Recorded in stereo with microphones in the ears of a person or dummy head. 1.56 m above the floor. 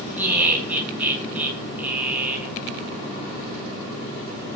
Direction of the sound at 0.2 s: 10° right (ahead or behind).